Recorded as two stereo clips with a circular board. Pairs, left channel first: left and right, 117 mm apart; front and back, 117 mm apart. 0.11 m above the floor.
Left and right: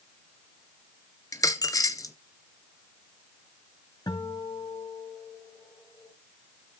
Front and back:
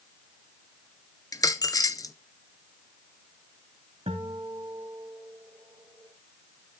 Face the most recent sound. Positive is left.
turn(degrees=145)